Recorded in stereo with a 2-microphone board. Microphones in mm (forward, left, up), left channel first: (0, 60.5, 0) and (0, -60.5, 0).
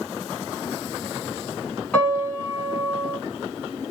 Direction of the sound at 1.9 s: 10° left (ahead or behind).